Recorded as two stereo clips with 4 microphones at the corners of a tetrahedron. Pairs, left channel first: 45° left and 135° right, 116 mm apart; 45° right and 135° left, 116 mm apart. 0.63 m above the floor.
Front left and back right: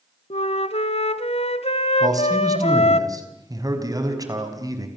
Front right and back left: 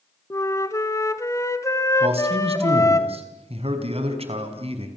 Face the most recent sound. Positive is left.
turn(degrees=165)